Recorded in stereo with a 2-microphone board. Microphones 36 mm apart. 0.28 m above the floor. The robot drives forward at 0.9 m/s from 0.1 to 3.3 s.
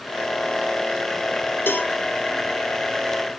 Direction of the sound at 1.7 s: 85° left.